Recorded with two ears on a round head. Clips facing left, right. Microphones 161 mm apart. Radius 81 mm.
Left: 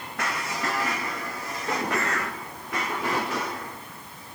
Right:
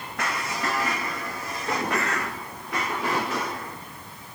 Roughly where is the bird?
Right.